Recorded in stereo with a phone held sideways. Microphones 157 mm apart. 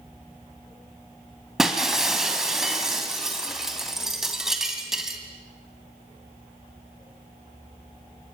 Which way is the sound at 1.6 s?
Centre (ahead or behind).